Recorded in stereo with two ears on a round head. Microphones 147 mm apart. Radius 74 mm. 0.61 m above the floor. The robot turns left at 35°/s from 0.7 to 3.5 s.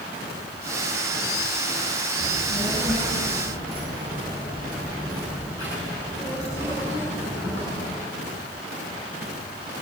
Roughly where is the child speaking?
Ahead.